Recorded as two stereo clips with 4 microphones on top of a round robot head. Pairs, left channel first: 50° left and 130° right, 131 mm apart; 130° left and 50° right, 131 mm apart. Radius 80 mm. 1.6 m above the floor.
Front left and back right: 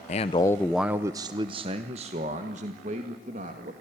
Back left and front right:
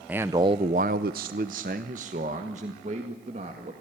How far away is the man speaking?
About 0.6 m.